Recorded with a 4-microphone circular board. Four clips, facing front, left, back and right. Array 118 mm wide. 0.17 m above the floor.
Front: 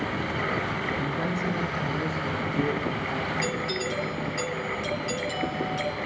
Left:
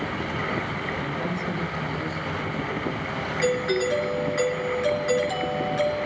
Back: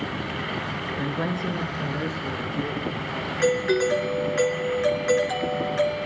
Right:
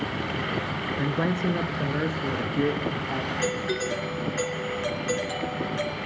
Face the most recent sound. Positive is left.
turn(degrees=175)